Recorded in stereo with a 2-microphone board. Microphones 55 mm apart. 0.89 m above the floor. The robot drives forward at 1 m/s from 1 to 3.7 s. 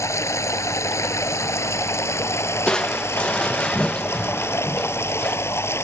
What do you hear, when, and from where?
0.0 s running water: 60° left (ahead or behind); by 5.8 s 50° left (ahead or behind)
2.7 s crushing: 15° left (ahead or behind); by 5.4 s 20° left (ahead or behind)